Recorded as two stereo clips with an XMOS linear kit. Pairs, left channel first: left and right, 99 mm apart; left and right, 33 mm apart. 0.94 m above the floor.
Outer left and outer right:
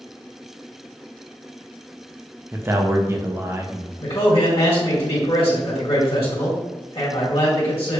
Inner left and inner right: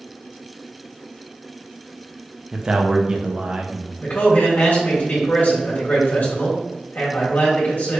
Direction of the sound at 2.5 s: 25° right (ahead or behind).